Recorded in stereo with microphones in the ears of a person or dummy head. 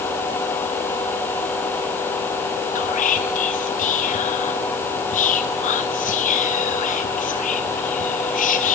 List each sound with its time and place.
2.8 s whispering: 40° left (ahead or behind), 0.5 m